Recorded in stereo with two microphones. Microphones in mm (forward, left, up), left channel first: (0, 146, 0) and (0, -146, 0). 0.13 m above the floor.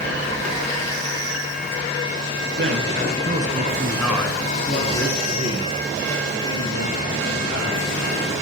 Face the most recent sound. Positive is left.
turn(degrees=70)  # may be behind; listen again after turning